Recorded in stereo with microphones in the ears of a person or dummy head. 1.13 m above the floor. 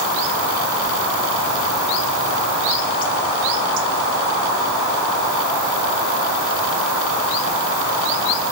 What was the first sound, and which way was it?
Only background noise.